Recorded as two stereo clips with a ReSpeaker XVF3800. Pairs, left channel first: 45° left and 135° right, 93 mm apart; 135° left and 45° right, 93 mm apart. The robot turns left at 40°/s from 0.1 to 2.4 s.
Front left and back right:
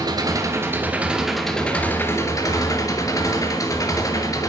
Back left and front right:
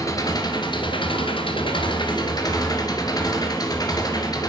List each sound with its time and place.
0.0 s an engine running: 175° right, 1.9 m; by 4.5 s 95° left, 1.9 m